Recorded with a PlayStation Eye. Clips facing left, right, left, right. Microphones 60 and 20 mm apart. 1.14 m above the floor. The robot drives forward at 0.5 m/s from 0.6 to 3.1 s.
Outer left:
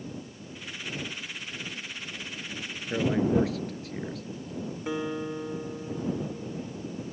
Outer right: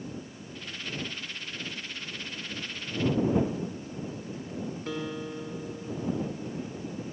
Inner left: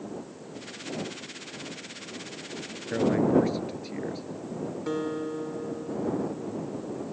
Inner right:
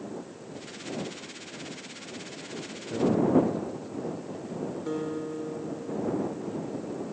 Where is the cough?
I don't hear a cough.